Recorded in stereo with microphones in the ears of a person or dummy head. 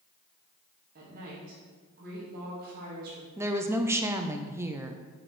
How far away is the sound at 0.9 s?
About 1.8 m.